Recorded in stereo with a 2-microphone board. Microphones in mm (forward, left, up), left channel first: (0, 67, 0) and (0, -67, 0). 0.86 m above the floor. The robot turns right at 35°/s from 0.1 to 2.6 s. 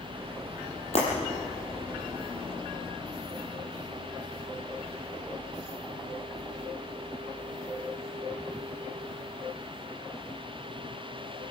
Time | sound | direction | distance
0.9 | breaking glass | 50° left (ahead or behind) | 7 m